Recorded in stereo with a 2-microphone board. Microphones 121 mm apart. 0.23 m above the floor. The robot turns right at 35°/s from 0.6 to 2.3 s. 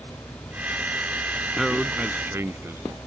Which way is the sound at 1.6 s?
Centre (ahead or behind).